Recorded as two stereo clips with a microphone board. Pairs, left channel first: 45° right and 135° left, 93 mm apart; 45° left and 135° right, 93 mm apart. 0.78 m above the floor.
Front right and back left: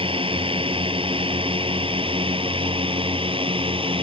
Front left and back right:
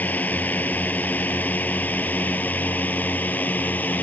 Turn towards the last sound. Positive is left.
turn(degrees=115)